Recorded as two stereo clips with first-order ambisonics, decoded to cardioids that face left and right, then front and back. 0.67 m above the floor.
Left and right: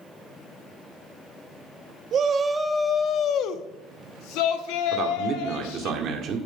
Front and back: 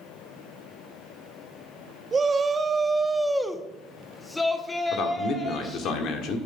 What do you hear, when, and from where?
2.1 s a shout: 125° right, 0.6 m; by 5.9 s 80° left, 2 m
4.9 s a man speaking: 40° right, 1.8 m